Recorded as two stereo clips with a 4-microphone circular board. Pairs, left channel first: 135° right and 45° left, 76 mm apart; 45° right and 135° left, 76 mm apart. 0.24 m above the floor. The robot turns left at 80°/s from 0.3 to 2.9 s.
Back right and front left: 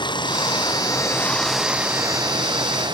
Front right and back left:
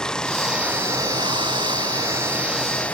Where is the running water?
125° right; by 2.9 s 25° left.